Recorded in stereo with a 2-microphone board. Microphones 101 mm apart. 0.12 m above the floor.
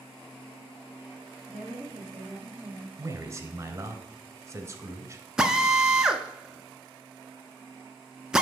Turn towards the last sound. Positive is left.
turn(degrees=-5)  # may be behind; listen again after turning